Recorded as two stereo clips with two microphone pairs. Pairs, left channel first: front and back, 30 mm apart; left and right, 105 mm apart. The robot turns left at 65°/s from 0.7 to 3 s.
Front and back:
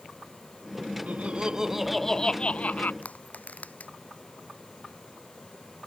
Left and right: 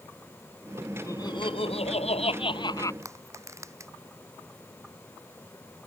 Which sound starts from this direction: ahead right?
Crushing, at 3.0 s.